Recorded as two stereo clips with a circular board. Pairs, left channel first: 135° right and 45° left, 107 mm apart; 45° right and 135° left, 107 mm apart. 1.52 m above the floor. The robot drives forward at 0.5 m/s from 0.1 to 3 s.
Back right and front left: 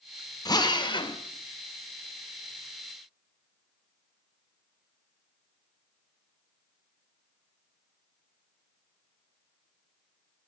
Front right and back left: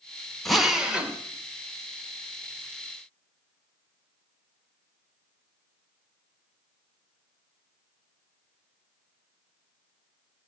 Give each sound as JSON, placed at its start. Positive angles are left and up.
{"t": 0.5, "sound": "a drill", "azimuth_deg": -135, "distance_m": 0.9}